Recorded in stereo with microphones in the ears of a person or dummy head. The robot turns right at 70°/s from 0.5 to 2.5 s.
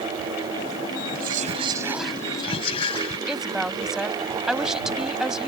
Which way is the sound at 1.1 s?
70° right.